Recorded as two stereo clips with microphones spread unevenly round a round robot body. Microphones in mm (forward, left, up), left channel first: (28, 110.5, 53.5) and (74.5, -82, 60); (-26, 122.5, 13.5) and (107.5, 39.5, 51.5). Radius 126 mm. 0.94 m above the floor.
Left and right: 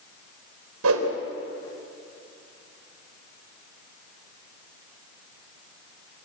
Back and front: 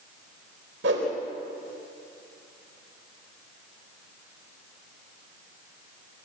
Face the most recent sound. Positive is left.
turn(degrees=-75)